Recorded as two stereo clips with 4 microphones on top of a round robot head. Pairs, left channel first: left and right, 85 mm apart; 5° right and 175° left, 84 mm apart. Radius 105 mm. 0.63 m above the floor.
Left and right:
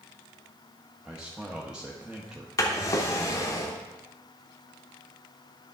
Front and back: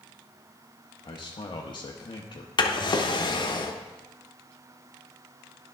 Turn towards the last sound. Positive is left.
turn(degrees=35)